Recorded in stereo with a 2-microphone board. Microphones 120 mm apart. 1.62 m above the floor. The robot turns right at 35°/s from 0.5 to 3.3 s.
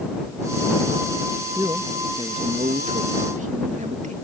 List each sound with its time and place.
1.6 s a man speaking: 155° right; by 4.2 s 90° right